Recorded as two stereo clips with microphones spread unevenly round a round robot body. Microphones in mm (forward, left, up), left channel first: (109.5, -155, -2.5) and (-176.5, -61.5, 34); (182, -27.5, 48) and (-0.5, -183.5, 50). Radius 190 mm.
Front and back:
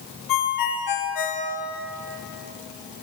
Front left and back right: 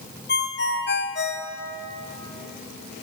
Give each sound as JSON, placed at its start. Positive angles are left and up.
{"t": 0.3, "sound": "a ringtone", "azimuth_deg": 0, "distance_m": 3.0}